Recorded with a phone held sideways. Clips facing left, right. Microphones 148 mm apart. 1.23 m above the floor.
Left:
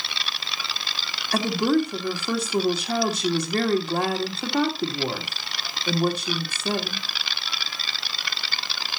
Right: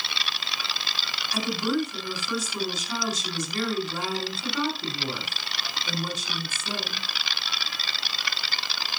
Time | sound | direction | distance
1.3 | a woman speaking | 60° left (ahead or behind) | 3 m